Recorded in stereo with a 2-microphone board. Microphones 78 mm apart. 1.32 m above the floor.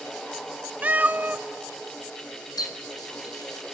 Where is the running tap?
50° left (ahead or behind), 0.9 m.